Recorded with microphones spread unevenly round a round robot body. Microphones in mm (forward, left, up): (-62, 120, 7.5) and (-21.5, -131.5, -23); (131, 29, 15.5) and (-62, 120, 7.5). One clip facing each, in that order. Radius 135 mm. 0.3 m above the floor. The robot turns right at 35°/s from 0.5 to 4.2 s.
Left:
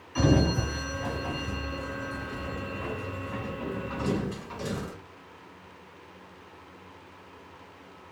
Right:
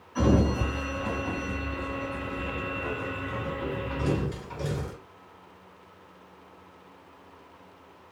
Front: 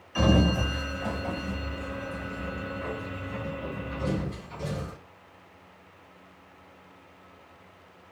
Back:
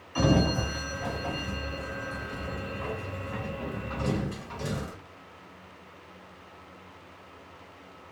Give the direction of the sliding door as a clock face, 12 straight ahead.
11 o'clock.